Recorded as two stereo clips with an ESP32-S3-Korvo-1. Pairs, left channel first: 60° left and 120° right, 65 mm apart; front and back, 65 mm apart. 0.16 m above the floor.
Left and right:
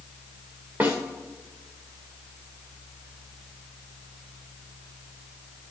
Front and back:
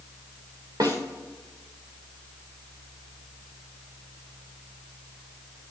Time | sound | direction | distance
0.8 | a snare drum | straight behind | 3 m